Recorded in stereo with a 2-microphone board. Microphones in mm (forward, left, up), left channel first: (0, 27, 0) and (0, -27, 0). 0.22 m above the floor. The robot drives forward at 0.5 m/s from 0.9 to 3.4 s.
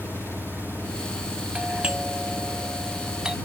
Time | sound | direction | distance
0.0 | an engine running | 50° left (ahead or behind) | ?
1.6 | a doorbell | 20° right (ahead or behind) | ?